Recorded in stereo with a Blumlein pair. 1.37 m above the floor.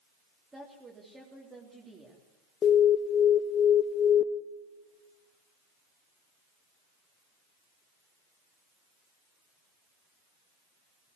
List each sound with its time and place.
0.5 s a woman speaking: 10° right, 3.5 m
2.6 s an alarm: 25° left, 0.7 m